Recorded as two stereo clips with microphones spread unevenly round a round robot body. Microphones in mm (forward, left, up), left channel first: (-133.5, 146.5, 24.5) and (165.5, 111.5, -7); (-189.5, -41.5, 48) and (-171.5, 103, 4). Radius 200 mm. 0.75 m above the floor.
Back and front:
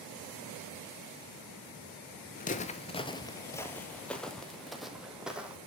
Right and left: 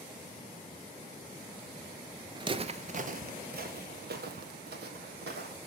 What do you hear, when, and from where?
2.4 s footsteps: 155° left, 0.8 m; by 5.6 s 80° left, 2 m